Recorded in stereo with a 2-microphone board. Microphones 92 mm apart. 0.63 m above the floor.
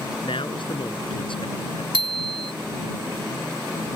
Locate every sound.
0.2 s a man speaking: 80° left
1.9 s a bicycle bell: 80° right